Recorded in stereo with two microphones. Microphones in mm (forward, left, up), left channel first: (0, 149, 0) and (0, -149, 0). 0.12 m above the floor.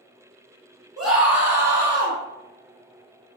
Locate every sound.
1.0 s a scream: centre (ahead or behind), 1.7 m; by 2.2 s 15° right (ahead or behind), 1.9 m